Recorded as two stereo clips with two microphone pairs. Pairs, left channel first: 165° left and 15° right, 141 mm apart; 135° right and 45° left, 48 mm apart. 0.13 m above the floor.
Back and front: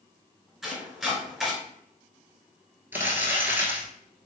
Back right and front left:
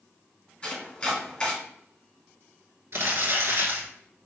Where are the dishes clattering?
No dishes clattering in this recording.